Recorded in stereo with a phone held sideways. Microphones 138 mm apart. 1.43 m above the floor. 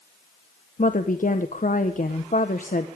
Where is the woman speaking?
75° left (ahead or behind), 1.3 m.